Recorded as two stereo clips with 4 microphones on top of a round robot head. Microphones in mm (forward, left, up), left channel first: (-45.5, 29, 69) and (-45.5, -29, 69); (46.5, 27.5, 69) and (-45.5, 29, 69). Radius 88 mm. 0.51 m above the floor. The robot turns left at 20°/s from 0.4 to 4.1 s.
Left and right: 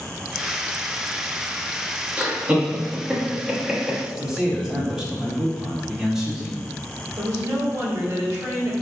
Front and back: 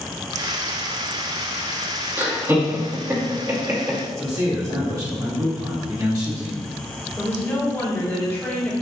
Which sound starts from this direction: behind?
A man speaking, at 4.2 s.